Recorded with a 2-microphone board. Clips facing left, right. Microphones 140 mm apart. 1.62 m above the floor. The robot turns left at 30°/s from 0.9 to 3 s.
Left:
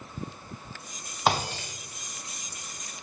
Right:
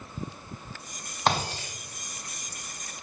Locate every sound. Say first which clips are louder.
1.3 s breaking glass: left 1 dB; 5° left (ahead or behind), 1.7 m; by 1.7 s 5° right (ahead or behind), 1.7 m